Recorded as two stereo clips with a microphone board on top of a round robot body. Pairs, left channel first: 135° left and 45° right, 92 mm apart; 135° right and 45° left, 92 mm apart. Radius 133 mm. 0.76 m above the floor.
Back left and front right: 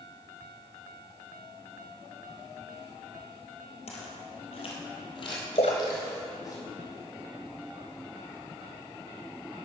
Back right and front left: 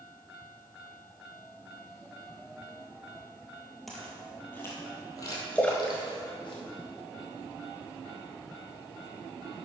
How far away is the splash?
About 0.7 m.